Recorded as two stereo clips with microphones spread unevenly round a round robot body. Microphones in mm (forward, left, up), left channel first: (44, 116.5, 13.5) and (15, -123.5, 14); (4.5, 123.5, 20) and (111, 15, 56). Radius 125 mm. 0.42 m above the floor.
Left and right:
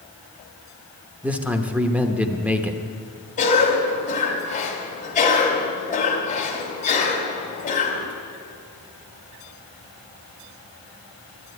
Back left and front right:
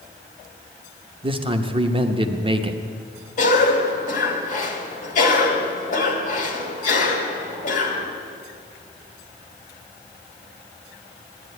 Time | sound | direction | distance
1.2 | a man speaking | 25° right | 0.9 m
3.4 | a cough | 140° left | 2.5 m